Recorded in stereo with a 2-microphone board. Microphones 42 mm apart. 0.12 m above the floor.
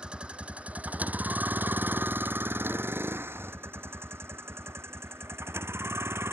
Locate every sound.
0.0 s a vehicle: 25° right (ahead or behind); by 6.3 s 80° right